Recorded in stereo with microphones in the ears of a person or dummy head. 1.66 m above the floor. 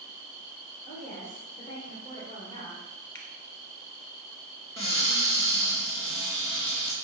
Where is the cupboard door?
20° left (ahead or behind), 0.9 m.